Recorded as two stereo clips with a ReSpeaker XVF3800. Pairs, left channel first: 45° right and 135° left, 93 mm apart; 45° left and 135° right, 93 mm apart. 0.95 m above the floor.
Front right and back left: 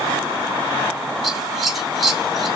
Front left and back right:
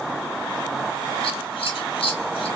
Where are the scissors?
50° left, 2.5 m.